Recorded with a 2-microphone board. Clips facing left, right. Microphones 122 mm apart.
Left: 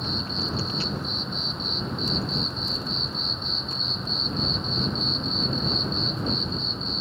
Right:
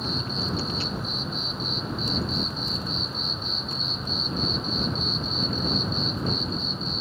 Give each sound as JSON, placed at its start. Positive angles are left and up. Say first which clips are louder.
{"t": 0.0, "sound": "an insect", "louder": "right 1 dB", "side_deg": 0}